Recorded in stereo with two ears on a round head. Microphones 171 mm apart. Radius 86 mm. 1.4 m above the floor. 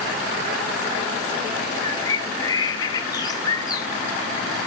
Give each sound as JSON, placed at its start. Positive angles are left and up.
{"t": 1.8, "sound": "a bird", "side_deg": 20, "distance_m": 0.8}